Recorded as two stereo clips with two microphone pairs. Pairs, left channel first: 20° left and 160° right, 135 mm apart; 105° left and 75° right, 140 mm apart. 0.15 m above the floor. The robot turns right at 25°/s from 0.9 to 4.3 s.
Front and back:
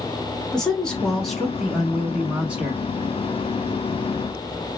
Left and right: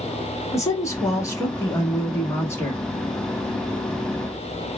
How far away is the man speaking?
About 1.0 m.